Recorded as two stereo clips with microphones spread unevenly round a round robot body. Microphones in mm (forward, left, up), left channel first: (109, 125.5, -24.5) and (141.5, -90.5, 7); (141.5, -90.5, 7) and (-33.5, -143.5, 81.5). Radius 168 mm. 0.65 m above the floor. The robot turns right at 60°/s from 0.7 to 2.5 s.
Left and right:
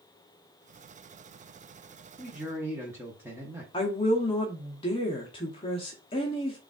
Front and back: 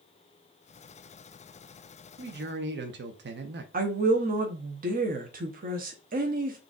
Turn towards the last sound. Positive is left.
turn(degrees=145)